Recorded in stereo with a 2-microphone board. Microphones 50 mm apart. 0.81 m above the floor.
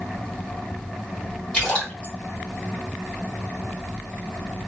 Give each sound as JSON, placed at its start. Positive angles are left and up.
{"t": 1.5, "sound": "a splash", "side_deg": 25, "distance_m": 1.7}